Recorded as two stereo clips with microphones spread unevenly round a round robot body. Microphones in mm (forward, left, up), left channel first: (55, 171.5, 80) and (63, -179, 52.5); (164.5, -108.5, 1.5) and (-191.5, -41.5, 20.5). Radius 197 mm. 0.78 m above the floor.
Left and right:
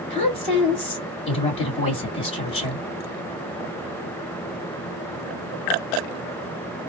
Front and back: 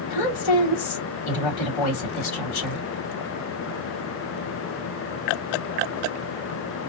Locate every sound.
0.1 s a woman speaking: 15° left, 2 m